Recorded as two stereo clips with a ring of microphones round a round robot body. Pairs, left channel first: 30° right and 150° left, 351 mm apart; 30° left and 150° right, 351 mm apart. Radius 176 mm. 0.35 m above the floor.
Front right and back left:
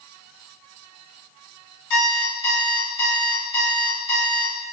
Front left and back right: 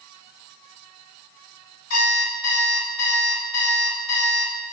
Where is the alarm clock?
20° right, 1.2 m.